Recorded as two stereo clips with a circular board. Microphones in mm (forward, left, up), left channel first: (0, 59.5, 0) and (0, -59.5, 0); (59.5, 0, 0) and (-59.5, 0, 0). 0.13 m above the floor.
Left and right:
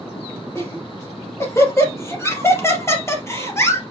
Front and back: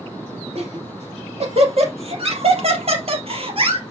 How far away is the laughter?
About 5 m.